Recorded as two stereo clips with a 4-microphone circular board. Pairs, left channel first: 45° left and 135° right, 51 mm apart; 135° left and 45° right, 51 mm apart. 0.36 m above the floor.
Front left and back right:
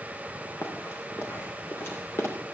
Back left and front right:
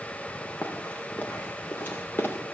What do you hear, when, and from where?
0.6 s running footsteps: 75° left, 4.5 m; by 2.3 s 80° left, 3.5 m